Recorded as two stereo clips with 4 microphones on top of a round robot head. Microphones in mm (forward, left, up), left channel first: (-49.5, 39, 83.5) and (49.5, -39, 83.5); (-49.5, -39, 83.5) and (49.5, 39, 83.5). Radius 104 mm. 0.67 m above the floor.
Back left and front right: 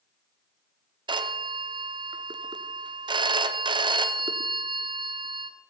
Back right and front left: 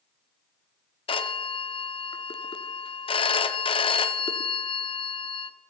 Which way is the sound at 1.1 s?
95° right.